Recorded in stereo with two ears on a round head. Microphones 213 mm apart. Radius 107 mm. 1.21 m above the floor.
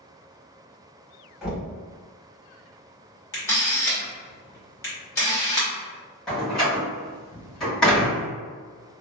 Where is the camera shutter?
10° left (ahead or behind), 1.4 m.